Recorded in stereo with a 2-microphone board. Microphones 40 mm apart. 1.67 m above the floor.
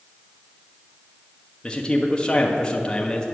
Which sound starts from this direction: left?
A man speaking, at 1.6 s.